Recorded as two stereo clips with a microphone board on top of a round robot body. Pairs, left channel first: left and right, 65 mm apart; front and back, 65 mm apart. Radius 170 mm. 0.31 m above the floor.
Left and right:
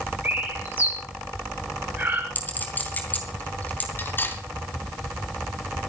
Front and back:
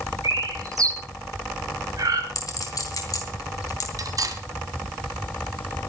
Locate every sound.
0.2 s a bird: 150° right, 4.5 m
2.4 s a clink: 25° left, 3.5 m
4.0 s cutlery clinking: 150° left, 2 m